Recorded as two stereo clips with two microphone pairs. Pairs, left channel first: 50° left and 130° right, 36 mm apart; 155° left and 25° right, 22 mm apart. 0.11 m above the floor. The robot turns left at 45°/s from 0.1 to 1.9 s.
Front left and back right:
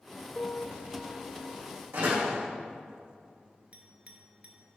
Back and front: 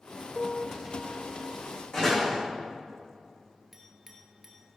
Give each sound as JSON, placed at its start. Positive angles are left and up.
{"t": 0.4, "sound": "a piano", "azimuth_deg": 85, "distance_m": 1.1}
{"t": 1.9, "sound": "a door slam", "azimuth_deg": -155, "distance_m": 5.0}
{"t": 3.7, "sound": "a clink", "azimuth_deg": -100, "distance_m": 1.6}